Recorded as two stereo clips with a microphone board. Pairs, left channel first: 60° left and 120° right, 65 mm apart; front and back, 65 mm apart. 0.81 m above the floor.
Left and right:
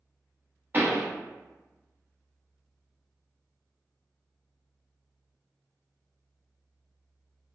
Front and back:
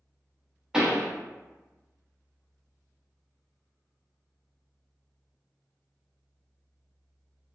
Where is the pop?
110° right, 0.9 m.